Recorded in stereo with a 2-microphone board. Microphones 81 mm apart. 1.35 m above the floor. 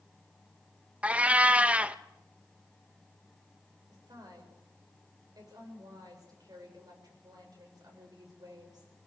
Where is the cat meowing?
15° right (ahead or behind), 0.6 m.